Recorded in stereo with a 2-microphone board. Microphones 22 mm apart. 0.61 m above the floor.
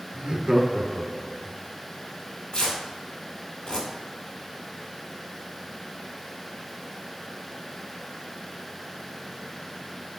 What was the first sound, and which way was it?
Laughter, 45° right (ahead or behind).